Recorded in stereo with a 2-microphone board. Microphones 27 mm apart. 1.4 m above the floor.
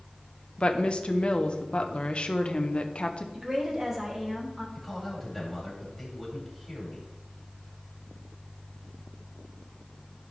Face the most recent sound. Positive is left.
turn(degrees=0)  # may be behind; listen again after turning